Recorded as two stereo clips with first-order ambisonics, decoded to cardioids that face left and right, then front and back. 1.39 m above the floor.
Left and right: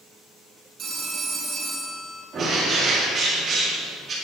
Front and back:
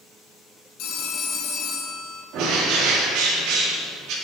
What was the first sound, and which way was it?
A phone ringing, 35° right.